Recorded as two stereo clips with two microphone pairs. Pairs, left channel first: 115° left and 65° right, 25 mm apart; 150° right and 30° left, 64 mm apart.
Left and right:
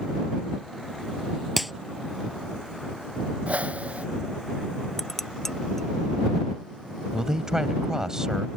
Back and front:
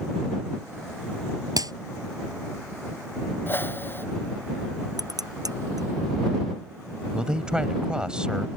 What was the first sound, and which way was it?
A clap, 20° left.